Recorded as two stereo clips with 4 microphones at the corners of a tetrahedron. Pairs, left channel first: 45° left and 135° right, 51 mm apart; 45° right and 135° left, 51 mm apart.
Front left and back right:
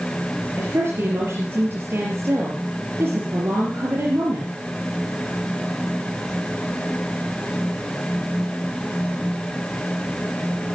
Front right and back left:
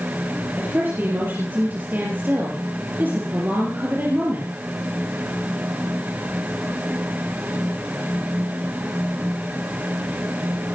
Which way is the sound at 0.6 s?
175° right.